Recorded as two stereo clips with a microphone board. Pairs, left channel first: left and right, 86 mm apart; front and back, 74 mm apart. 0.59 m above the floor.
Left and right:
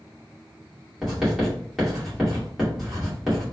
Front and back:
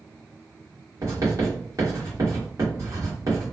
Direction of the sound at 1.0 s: 175° right.